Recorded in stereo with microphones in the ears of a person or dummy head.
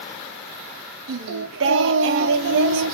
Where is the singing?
70° right (ahead or behind), 0.9 m.